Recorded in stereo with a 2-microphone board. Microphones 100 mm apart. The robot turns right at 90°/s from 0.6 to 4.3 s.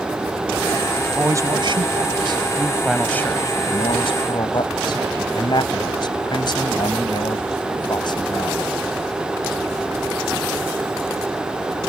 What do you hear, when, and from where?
1.1 s a man speaking: 170° right; by 8.6 s 120° left